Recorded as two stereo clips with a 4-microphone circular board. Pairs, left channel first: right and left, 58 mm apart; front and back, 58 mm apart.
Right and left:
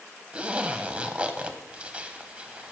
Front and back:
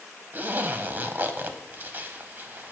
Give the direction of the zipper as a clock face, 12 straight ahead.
7 o'clock.